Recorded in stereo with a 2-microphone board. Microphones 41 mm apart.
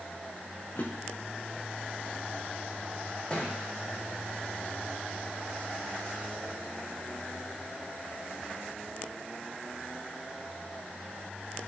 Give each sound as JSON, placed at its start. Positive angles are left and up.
{"t": 0.8, "sound": "a drawer", "side_deg": 85, "distance_m": 3.5}
{"t": 3.3, "sound": "a thud", "side_deg": 30, "distance_m": 3.5}